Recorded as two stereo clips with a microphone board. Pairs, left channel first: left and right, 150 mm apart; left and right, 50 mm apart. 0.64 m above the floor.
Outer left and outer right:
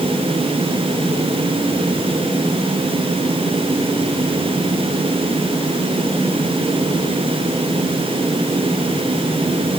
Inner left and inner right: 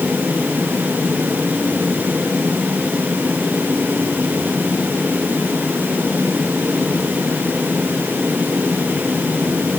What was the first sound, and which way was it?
Only background noise.